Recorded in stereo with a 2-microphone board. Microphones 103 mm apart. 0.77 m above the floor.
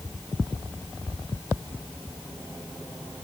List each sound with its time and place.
Only background noise.